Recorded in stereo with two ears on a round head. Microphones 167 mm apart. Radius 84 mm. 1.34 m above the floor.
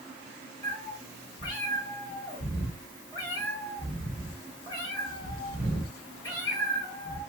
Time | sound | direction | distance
0.6 | a cat meowing | 20° left (ahead or behind) | 1.6 m